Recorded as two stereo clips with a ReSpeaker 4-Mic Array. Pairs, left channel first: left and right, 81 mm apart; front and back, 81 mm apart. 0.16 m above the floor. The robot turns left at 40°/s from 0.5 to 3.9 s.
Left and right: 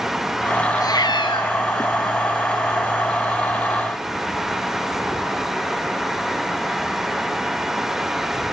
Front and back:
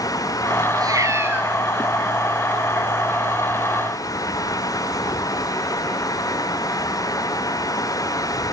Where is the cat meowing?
140° left, 1.5 m; by 1.5 s 110° left, 1.5 m.